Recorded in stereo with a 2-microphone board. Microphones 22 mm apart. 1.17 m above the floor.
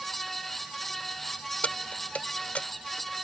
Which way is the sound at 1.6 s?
85° left.